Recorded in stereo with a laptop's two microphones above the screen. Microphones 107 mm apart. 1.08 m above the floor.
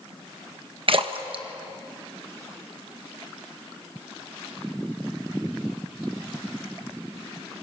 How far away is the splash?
About 1.2 m.